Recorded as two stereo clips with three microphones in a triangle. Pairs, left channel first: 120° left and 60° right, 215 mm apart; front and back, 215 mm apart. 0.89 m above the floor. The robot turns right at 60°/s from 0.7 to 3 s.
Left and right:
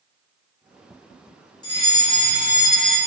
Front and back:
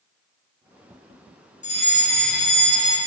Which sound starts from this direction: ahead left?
A fire alarm, at 1.6 s.